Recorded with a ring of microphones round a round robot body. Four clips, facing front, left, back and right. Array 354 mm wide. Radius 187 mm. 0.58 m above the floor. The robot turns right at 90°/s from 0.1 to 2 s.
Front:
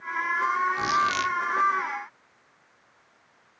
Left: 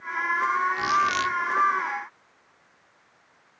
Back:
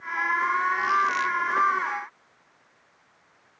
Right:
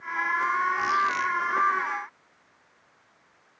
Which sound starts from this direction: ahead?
A squeak, at 0.8 s.